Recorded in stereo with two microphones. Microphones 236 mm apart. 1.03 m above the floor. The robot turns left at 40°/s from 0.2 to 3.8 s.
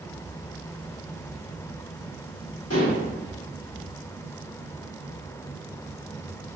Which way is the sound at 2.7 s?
85° left.